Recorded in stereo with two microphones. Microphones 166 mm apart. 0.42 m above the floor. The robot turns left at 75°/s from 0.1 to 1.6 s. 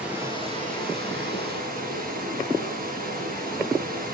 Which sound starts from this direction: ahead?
Running water, at 0.0 s.